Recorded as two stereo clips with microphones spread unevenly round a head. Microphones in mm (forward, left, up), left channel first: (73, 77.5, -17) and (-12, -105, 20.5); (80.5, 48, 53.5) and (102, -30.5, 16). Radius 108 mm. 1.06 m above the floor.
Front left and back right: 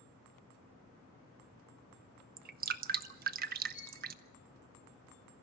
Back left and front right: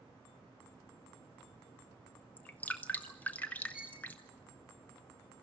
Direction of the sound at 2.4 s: 165° right.